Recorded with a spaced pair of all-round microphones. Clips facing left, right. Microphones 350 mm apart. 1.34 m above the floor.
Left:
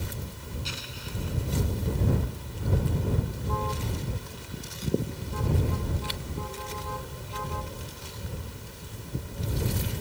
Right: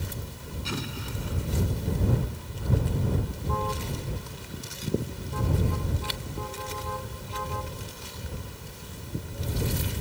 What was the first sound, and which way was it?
An explosion, 75° right (ahead or behind).